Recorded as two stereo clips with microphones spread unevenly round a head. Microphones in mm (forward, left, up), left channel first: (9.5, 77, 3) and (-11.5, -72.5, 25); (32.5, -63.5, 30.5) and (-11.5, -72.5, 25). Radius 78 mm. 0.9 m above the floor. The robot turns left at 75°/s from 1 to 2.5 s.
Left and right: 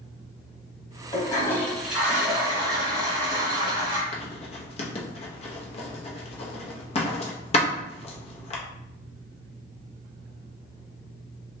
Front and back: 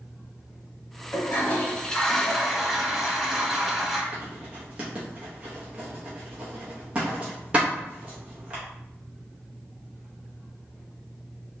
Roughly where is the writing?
Behind left.